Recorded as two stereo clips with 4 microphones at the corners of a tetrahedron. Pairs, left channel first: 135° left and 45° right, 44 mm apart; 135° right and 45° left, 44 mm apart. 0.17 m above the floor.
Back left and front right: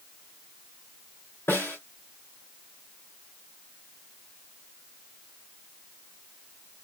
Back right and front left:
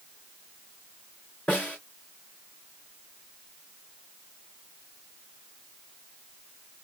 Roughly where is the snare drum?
Behind.